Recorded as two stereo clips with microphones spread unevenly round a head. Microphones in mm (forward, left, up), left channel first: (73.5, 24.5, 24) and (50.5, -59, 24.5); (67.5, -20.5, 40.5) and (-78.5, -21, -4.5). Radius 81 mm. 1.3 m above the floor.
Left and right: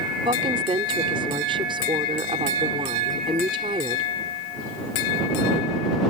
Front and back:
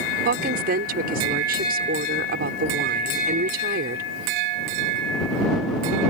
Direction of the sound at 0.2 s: 155° right.